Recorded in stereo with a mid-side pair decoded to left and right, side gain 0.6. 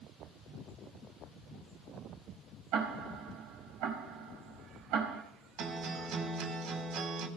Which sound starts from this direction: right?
Ticking, at 2.7 s.